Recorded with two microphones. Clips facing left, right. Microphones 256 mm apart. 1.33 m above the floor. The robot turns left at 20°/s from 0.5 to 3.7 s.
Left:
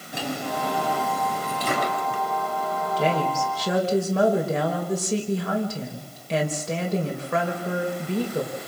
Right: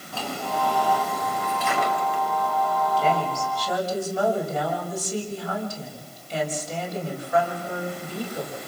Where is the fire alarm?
I don't hear a fire alarm.